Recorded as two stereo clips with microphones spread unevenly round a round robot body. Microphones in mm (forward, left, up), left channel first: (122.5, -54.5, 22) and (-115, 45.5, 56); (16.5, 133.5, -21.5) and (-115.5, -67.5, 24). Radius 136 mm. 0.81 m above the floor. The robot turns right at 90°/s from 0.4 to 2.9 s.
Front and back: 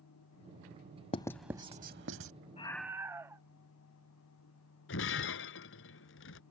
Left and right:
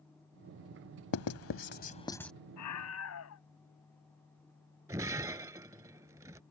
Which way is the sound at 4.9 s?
60° right.